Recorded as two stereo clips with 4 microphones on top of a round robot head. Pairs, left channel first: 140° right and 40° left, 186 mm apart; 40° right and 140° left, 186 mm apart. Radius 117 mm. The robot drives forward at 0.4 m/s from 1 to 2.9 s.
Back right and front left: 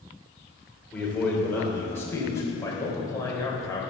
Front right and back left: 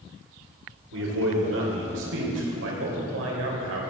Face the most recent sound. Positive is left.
turn(degrees=145)